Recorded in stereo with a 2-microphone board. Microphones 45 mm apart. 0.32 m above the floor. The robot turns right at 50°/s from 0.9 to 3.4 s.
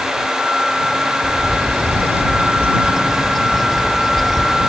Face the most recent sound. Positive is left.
turn(degrees=5)